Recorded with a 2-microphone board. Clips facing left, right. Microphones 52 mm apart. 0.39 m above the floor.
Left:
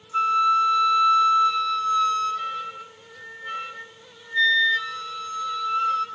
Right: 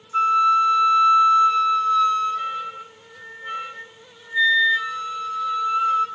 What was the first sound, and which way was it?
A flute, 10° right (ahead or behind).